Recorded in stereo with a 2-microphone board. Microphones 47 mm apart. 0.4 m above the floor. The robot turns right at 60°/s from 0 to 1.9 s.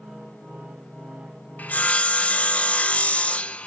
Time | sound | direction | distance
1.6 | sawing | 40° left (ahead or behind) | 0.7 m